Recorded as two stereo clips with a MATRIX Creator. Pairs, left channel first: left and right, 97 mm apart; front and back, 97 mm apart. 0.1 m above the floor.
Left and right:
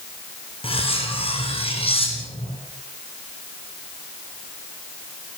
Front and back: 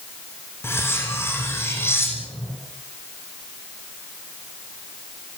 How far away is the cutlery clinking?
About 5 m.